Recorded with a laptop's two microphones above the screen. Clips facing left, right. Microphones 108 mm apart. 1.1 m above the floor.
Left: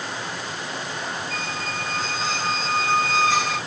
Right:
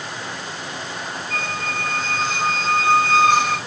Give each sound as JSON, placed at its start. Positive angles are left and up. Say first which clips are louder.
{"t": 1.3, "sound": "a squeak", "louder": "right 3 dB", "side_deg": -65, "distance_m": 2.5}